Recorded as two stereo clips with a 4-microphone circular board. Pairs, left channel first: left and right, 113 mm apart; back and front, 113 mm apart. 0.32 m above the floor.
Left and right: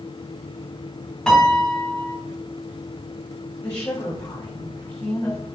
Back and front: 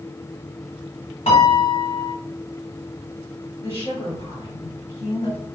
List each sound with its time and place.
1.3 s a piano: 175° left, 1.5 m
3.6 s a woman speaking: 155° left, 1.7 m